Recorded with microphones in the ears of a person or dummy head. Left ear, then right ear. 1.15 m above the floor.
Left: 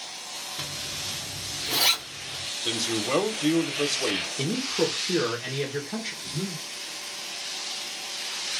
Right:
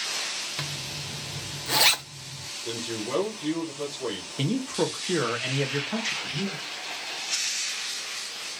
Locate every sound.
0.6 s a zipper: 40° right (ahead or behind), 0.9 m
2.6 s a man speaking: 70° left (ahead or behind), 0.6 m
4.4 s a man speaking: 45° right (ahead or behind), 0.9 m
6.2 s breathing: 70° right (ahead or behind), 1.2 m